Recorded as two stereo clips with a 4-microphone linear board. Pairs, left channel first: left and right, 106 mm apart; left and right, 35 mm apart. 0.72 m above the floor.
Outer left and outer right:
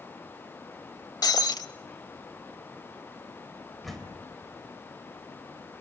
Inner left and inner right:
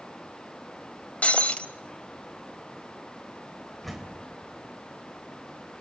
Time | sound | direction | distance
1.2 | breaking glass | 40° left (ahead or behind) | 0.8 m
3.8 | a door slam | centre (ahead or behind) | 3 m